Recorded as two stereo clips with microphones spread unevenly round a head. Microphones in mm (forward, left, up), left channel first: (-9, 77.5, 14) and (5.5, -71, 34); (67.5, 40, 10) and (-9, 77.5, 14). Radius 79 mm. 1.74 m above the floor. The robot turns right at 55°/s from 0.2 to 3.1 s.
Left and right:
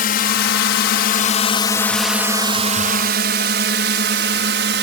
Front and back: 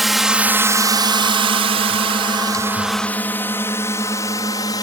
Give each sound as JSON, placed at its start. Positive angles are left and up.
{"t": 0.0, "sound": "a drone", "azimuth_deg": 65}